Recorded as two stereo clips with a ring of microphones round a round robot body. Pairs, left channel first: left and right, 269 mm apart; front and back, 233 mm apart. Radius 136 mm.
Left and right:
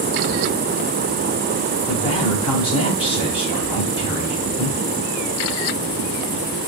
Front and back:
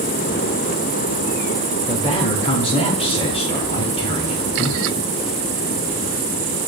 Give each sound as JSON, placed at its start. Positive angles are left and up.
{"t": 1.9, "sound": "a man speaking", "azimuth_deg": 40, "distance_m": 1.0}